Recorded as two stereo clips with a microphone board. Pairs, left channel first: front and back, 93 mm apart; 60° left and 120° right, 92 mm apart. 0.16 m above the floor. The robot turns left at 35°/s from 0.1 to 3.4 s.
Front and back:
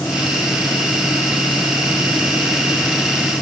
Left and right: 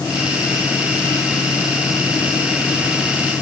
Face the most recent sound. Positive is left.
No sound to turn to.